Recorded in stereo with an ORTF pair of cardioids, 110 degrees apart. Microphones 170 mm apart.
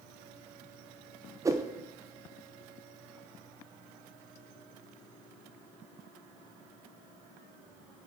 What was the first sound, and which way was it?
A whoosh, 20° right.